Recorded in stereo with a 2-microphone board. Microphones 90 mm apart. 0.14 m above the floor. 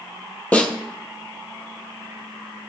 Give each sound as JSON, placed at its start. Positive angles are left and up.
{"t": 0.5, "sound": "a snare drum", "side_deg": 15, "distance_m": 1.7}